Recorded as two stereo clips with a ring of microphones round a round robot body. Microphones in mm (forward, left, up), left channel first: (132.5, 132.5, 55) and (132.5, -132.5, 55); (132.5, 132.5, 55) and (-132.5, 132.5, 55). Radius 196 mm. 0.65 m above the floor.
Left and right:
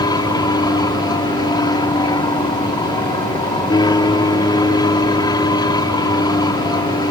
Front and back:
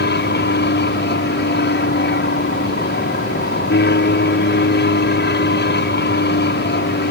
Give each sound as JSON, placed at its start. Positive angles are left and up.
{"t": 0.0, "sound": "an aircraft", "azimuth_deg": 20}